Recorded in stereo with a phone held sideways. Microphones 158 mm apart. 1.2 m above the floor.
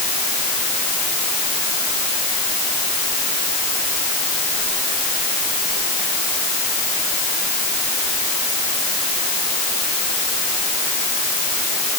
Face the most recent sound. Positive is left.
No sound to turn to.